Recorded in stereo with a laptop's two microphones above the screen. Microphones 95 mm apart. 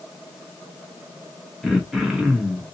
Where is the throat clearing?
5° right (ahead or behind), 0.9 m.